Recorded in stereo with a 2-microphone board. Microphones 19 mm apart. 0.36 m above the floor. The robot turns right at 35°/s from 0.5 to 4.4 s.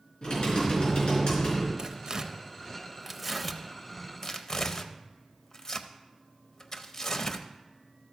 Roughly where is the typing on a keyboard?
Ahead left.